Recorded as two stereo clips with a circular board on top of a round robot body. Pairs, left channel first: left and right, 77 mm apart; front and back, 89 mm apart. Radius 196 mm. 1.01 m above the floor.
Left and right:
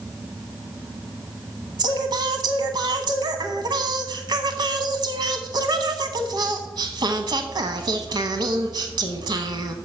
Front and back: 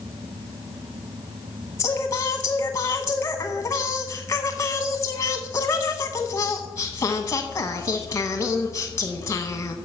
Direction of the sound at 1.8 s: 65° right.